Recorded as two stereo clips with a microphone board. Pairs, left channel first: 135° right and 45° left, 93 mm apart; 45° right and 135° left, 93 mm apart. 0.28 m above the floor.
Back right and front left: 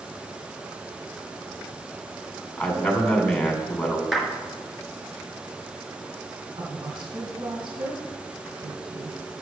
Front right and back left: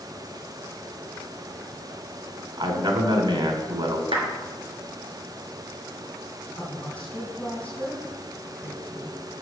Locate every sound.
2.6 s a man speaking: 145° left, 2 m
4.1 s a clap: 135° left, 3 m
6.6 s a woman speaking: 30° left, 2.5 m